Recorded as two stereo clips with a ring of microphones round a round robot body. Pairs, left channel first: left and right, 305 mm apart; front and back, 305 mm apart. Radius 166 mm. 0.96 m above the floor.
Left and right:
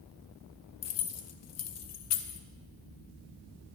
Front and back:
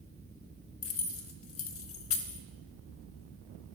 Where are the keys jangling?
50° left, 0.9 m.